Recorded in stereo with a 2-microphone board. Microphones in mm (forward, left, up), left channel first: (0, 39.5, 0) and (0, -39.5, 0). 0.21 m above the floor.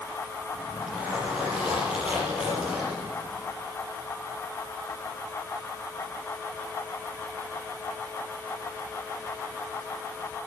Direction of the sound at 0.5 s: 15° right (ahead or behind).